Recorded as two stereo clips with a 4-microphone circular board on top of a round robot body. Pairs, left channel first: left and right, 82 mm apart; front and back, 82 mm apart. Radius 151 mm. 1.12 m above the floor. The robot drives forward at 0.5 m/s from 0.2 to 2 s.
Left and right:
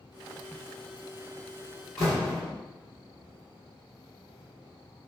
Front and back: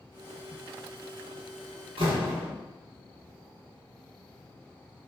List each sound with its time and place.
2.0 s a door slam: 175° left, 1.7 m